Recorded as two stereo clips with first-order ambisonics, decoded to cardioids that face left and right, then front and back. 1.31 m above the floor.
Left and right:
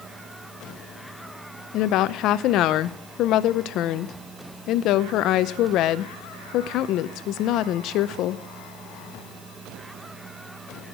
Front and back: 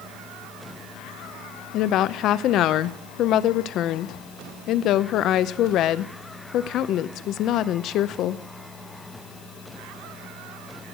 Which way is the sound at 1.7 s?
50° left.